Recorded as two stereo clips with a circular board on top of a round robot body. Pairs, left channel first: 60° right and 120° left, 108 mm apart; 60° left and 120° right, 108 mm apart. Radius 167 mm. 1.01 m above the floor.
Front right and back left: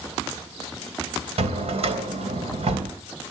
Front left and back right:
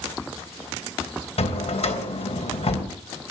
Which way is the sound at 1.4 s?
90° left.